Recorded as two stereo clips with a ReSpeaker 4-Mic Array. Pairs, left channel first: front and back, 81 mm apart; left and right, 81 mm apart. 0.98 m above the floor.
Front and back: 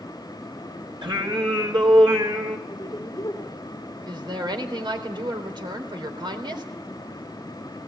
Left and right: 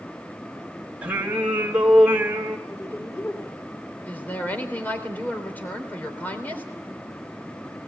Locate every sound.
1.0 s singing: 165° right, 3 m
2.7 s a woman speaking: 35° left, 3.5 m
4.1 s a woman speaking: 160° left, 3.5 m